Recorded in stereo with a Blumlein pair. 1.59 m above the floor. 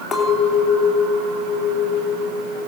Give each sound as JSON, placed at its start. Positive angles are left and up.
{"t": 0.1, "sound": "a clink", "azimuth_deg": 5, "distance_m": 2.5}